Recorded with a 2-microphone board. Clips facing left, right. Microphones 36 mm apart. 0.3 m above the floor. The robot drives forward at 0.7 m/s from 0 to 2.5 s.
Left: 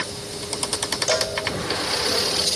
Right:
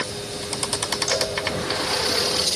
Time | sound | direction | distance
1.1 | a cowbell | 75° left (ahead or behind) | 0.6 m